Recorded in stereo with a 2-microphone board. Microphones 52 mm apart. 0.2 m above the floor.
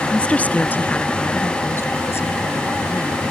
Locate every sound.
0.1 s a woman speaking: 20° left (ahead or behind); by 3.3 s 60° left (ahead or behind)